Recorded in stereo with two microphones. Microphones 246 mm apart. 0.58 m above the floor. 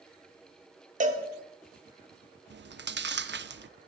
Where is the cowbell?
30° right (ahead or behind), 1.3 m.